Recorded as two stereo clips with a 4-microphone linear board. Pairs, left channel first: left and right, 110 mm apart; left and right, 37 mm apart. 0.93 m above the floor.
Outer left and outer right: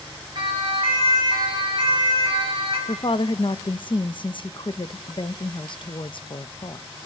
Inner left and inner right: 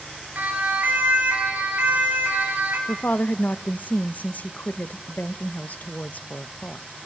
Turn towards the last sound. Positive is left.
turn(degrees=50)  # may be behind; listen again after turning